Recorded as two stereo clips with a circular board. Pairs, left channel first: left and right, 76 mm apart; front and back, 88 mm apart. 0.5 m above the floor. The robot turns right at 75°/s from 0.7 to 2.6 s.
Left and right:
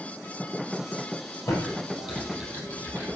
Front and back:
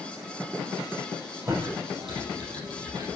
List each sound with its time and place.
1.5 s typing on a keyboard: 125° left, 6 m; by 3.1 s 150° right, 6 m